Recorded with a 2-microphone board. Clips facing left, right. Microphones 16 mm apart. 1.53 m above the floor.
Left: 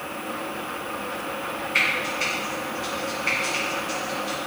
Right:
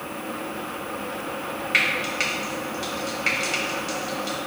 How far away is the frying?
About 2.5 m.